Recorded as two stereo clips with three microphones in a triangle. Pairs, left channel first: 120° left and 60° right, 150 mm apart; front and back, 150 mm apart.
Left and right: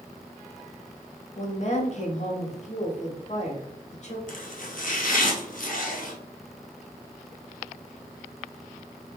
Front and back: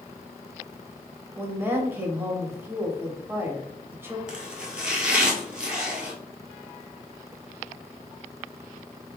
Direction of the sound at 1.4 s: 110° left.